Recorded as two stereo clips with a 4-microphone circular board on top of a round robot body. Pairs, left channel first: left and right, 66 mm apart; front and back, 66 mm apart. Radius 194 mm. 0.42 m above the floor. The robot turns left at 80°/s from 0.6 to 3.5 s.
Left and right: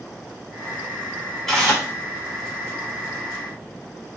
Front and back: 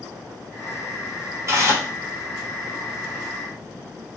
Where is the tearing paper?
175° left, 1.6 m; by 1.9 s 140° left, 1.6 m.